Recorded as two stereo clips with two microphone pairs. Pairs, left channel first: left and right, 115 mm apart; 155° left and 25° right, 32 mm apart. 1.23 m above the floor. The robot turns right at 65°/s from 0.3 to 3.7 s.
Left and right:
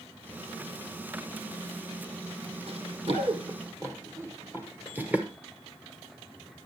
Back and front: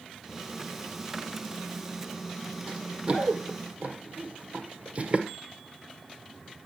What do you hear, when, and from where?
2.7 s running footsteps: 105° right, 2.5 m; by 5.3 s 15° right, 1.5 m